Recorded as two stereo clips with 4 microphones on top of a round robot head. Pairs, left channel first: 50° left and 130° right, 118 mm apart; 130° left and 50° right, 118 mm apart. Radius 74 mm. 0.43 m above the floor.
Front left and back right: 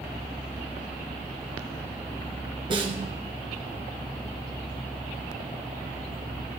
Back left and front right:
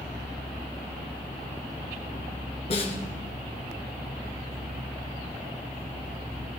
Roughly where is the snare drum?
Behind.